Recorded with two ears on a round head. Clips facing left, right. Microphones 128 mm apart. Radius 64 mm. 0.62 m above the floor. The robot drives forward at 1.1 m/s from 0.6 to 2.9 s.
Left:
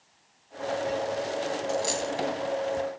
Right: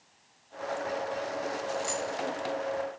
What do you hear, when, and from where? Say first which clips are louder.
1.7 s a dropped coin: left 4 dB; 30° left (ahead or behind), 0.9 m; by 2.1 s 50° left (ahead or behind), 0.7 m